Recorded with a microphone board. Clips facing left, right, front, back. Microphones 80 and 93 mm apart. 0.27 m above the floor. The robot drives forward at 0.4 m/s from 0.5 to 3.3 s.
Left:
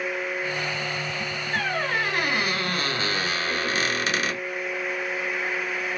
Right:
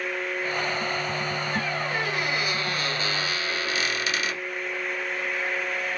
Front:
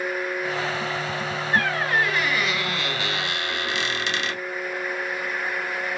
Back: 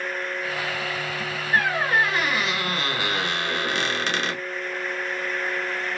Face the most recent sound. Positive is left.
turn(degrees=140)